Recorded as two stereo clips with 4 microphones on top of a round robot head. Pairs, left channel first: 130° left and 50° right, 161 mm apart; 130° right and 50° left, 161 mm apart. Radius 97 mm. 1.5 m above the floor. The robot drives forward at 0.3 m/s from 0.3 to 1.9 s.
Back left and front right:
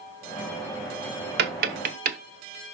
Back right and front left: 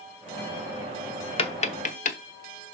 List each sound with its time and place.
1.4 s tapping: 75° right, 0.8 m; by 2.2 s 85° right, 0.7 m